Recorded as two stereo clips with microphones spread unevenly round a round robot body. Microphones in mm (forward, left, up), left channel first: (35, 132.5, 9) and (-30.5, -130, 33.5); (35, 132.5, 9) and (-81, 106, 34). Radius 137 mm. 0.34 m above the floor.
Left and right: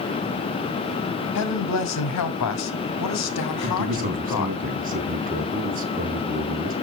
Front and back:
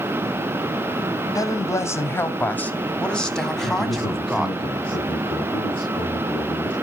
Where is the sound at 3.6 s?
40° right, 3.5 m.